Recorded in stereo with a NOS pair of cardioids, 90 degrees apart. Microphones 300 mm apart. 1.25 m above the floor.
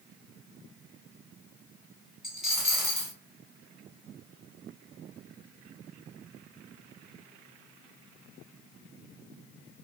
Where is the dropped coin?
Straight ahead, 2.0 m.